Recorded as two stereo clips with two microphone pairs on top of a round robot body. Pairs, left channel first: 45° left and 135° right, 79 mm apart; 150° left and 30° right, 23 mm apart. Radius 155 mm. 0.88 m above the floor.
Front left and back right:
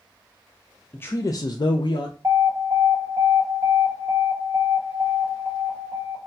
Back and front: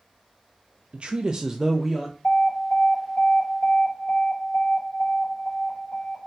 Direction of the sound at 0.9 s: 15° right.